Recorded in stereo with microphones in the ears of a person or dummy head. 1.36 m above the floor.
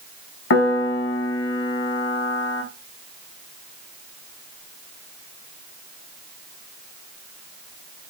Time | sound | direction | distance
0.5 | a piano | 60° left (ahead or behind) | 0.8 m